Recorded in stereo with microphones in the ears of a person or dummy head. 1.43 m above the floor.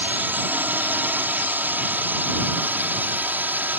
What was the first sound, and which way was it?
A drone, 10° right (ahead or behind).